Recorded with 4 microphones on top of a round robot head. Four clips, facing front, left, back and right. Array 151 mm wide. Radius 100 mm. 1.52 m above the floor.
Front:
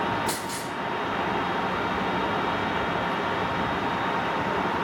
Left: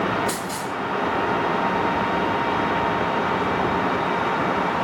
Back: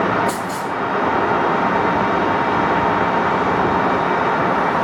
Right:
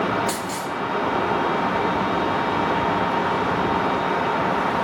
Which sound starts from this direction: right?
A dropped coin, at 0.3 s.